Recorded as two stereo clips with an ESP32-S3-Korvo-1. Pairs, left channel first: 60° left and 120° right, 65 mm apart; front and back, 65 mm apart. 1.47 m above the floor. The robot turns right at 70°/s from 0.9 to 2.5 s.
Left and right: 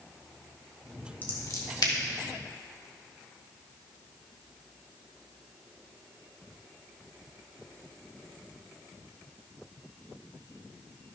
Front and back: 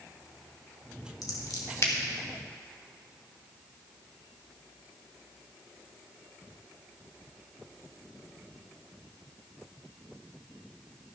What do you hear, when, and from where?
1.2 s scissors: straight ahead, 2.5 m; by 1.9 s 50° left, 2.5 m